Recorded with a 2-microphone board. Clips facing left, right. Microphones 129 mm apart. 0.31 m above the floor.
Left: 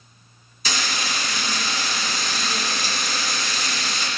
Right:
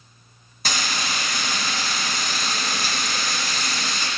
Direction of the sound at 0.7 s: 55° right (ahead or behind).